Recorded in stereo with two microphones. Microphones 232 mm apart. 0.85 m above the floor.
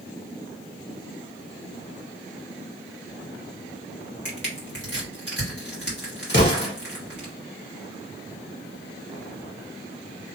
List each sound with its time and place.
4.2 s crushing: 50° left (ahead or behind), 1.6 m
6.3 s an explosion: 50° left (ahead or behind), 1.2 m